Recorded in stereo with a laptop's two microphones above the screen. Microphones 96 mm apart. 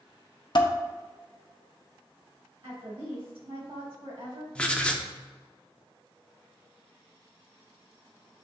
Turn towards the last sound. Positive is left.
turn(degrees=10)  # may be behind; listen again after turning